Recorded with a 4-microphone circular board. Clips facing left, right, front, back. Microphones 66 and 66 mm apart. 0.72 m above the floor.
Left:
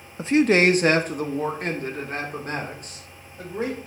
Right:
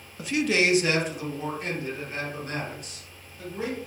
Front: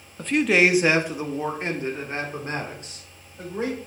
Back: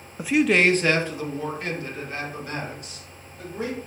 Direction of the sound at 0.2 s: 115° left.